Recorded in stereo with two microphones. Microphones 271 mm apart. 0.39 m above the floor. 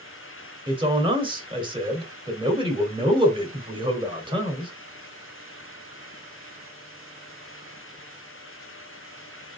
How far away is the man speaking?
About 1.7 m.